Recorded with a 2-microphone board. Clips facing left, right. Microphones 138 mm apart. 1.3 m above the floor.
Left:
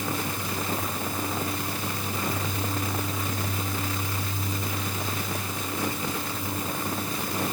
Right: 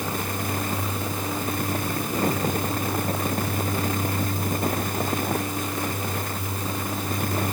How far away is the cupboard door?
I don't hear a cupboard door.